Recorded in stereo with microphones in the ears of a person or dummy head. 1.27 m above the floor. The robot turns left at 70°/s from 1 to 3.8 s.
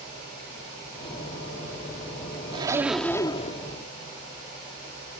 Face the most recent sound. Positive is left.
turn(degrees=120)